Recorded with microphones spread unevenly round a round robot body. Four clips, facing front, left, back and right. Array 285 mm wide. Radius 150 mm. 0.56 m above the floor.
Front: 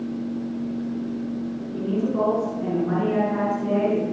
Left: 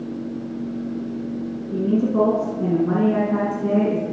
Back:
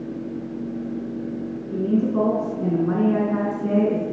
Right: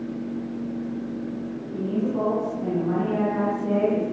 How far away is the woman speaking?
About 9.5 m.